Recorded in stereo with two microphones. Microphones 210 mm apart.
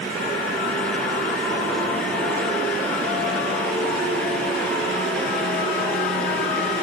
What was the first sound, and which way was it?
Only background noise.